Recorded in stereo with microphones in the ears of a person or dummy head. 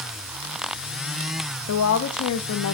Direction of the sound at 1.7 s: 70° left (ahead or behind).